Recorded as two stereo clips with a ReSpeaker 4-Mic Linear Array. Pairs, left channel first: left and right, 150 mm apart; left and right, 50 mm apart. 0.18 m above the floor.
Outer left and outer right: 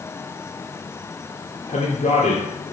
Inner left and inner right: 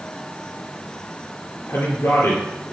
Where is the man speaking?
50° left (ahead or behind), 3.5 m.